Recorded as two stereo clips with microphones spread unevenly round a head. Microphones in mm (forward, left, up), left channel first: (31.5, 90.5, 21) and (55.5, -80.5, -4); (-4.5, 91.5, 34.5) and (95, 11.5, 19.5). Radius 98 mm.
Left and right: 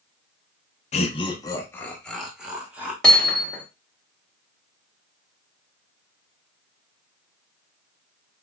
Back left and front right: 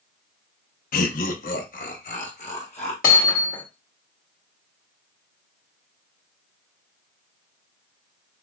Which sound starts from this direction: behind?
Hammering, at 3.0 s.